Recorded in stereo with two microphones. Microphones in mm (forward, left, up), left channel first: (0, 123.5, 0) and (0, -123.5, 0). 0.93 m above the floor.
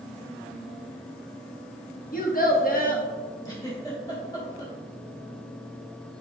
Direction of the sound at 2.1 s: 40° left (ahead or behind).